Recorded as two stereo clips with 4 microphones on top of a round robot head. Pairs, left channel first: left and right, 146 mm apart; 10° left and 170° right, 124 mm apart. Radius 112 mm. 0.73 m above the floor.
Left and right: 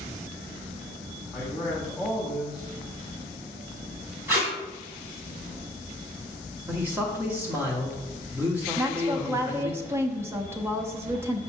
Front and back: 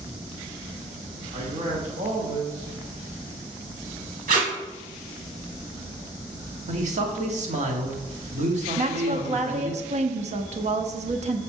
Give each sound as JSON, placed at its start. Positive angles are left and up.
{"t": 1.3, "sound": "a man speaking", "azimuth_deg": 180, "distance_m": 1.5}
{"t": 4.3, "sound": "tape being pulled", "azimuth_deg": -170, "distance_m": 2.0}
{"t": 6.7, "sound": "a man speaking", "azimuth_deg": -165, "distance_m": 1.7}
{"t": 8.8, "sound": "a woman speaking", "azimuth_deg": -160, "distance_m": 0.9}